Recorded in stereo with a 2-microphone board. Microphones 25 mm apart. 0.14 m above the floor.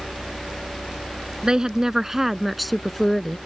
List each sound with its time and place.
1.4 s a woman speaking: 30° right (ahead or behind); by 3.4 s 20° left (ahead or behind)